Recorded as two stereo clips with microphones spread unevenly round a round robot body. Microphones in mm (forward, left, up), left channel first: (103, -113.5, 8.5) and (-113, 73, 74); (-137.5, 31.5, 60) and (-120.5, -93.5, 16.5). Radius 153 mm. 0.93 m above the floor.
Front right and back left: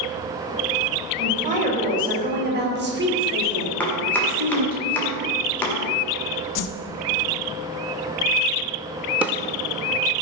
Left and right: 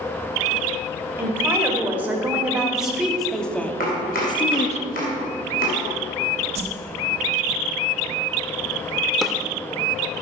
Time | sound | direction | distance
1.2 | a woman speaking | 155° right | 5 m
3.8 | chopping | 45° left | 2 m
6.5 | a whoosh | 45° right | 0.8 m
9.2 | a drawer | 105° left | 0.6 m